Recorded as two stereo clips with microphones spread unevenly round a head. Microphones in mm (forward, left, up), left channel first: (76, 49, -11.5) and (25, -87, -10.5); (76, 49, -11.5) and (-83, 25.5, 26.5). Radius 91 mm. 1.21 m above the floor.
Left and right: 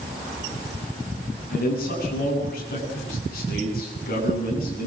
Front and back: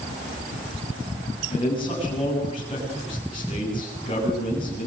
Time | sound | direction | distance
1.5 | a man speaking | 65° left | 8 m